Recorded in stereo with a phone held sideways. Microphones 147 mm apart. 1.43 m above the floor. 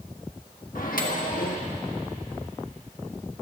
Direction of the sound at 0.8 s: 70° left (ahead or behind).